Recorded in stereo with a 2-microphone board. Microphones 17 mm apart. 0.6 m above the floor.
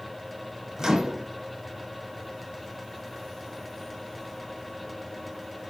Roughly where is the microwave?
Right.